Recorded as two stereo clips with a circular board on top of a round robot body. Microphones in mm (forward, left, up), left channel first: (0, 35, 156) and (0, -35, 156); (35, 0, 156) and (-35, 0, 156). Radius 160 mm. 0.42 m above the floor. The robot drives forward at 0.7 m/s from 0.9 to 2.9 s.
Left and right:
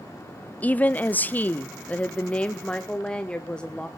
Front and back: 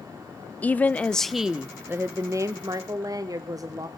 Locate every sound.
0.6 s a woman speaking: 45° left, 0.9 m; by 3.9 s 165° left, 1.4 m